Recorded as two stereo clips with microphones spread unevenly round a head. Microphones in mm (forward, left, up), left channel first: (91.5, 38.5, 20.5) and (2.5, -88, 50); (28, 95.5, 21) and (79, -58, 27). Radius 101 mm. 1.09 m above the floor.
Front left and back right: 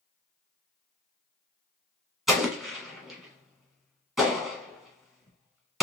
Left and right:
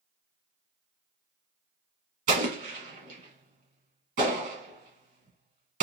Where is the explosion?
45° right, 1.7 m.